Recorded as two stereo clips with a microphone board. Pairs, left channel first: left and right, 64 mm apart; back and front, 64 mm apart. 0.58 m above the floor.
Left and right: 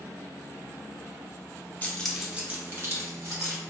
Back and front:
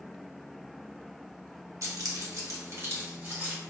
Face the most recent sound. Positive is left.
turn(degrees=-60)